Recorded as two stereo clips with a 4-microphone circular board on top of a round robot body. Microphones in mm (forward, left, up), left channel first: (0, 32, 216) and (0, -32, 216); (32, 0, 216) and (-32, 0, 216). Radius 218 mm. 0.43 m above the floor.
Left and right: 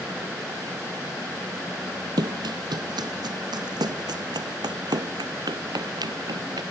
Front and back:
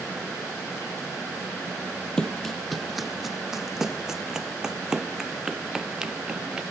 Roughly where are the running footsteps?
Right.